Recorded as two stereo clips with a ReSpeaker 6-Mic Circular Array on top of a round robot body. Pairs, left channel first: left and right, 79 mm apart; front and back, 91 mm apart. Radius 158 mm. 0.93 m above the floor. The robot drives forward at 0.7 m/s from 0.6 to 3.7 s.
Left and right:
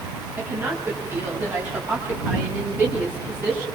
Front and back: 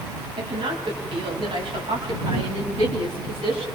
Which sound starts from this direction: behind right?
A woman speaking, at 0.4 s.